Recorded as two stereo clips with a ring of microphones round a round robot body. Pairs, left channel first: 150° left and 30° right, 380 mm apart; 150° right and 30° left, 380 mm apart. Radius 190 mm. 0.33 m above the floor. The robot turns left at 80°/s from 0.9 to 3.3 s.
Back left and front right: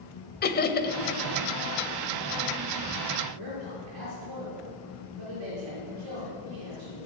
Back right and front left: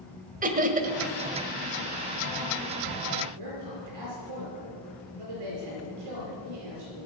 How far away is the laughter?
About 1.4 m.